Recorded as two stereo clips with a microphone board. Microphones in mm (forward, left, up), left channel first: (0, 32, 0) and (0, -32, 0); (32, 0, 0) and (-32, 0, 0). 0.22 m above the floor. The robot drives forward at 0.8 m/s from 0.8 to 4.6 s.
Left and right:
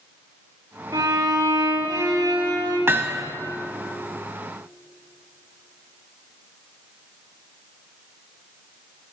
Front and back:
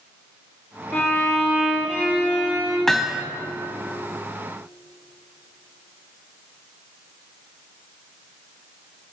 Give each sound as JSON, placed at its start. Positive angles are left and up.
{"t": 0.9, "sound": "a violin", "azimuth_deg": -65, "distance_m": 3.5}
{"t": 2.9, "sound": "hammering", "azimuth_deg": -85, "distance_m": 0.7}